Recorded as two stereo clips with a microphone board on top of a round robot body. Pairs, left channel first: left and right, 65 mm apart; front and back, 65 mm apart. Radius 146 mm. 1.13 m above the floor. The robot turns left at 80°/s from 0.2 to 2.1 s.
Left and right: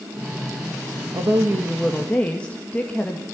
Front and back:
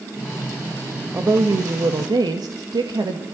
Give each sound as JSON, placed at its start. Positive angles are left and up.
{"t": 1.1, "sound": "a woman speaking", "azimuth_deg": -120, "distance_m": 1.9}